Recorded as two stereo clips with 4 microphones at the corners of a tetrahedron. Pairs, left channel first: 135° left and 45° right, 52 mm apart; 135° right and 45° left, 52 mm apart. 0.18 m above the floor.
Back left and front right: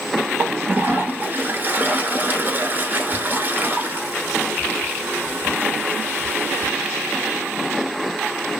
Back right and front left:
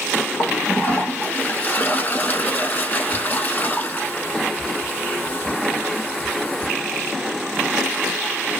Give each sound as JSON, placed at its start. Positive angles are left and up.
{"t": 0.4, "sound": "a toilet flushing", "azimuth_deg": -85, "distance_m": 0.9}